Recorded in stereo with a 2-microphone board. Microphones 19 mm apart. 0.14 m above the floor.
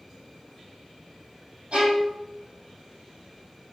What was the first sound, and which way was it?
A violin, 70° right (ahead or behind).